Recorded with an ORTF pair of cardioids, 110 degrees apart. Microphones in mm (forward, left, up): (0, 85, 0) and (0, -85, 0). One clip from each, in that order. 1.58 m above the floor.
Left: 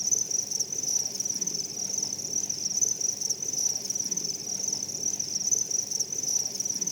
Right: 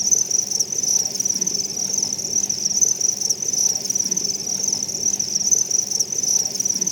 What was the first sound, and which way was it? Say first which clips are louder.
An insect: right 8 dB; 45° right.